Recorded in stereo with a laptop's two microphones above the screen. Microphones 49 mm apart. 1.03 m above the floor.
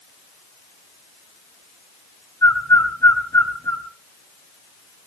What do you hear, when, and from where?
2.4 s a bird: 80° left, 3.5 m